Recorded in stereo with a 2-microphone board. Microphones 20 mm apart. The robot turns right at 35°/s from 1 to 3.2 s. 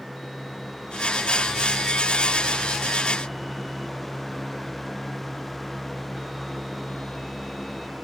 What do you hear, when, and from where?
Only background noise.